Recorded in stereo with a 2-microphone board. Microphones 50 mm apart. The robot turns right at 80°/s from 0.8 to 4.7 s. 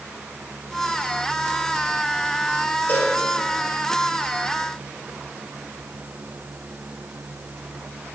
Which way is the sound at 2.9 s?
50° left (ahead or behind).